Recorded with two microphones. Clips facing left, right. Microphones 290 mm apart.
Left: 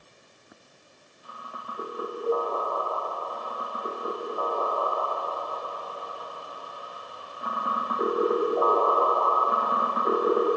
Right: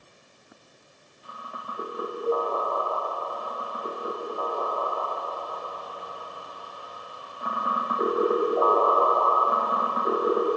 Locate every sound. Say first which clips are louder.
2.3 s a cowbell: even; centre (ahead or behind), 0.9 m